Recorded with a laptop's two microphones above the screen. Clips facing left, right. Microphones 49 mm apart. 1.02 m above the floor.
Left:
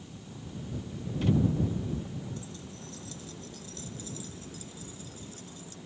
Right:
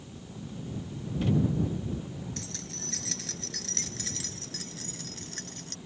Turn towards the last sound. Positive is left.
turn(degrees=-70)  # may be behind; listen again after turning